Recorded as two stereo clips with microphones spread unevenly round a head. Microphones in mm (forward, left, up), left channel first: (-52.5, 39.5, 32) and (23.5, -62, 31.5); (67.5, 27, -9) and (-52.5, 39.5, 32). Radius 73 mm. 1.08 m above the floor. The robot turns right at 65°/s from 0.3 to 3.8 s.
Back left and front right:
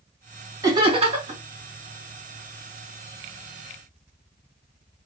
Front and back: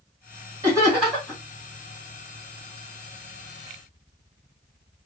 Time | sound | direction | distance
0.6 | laughter | 115° right | 1.5 m